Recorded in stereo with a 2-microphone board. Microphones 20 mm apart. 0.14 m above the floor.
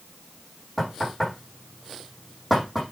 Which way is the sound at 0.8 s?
5° left (ahead or behind).